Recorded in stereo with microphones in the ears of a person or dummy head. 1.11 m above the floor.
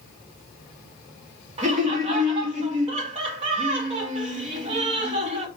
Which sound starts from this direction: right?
Laughter, at 1.6 s.